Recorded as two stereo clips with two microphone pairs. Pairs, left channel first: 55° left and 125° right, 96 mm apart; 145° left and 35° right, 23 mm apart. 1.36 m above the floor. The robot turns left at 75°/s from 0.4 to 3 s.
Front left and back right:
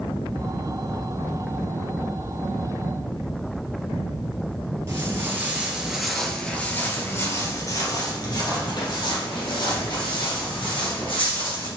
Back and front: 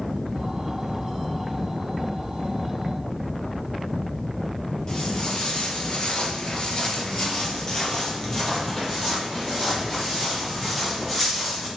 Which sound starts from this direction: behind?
Footsteps, at 4.9 s.